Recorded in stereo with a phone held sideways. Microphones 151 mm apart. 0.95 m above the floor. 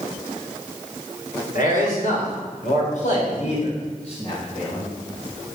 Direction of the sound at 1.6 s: 70° left (ahead or behind).